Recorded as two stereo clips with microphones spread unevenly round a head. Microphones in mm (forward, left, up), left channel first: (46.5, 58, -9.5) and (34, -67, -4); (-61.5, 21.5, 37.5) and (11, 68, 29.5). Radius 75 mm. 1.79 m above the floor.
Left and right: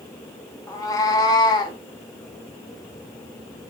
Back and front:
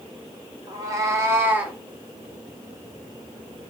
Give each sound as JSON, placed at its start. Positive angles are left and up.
{"t": 0.7, "sound": "a cat meowing", "azimuth_deg": 40, "distance_m": 1.4}